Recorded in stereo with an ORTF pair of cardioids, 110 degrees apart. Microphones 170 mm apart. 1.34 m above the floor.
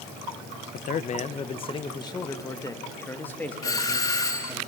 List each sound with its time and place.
0.7 s a man speaking: 55° left, 1.1 m; by 4.6 s 5° left, 3 m
3.6 s a doorbell: 20° left, 1.6 m